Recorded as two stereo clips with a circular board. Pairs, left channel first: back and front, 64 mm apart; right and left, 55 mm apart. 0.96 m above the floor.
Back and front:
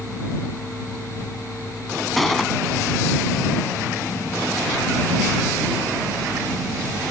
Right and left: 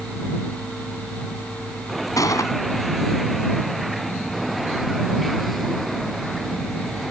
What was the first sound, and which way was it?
A gunshot, 95° right.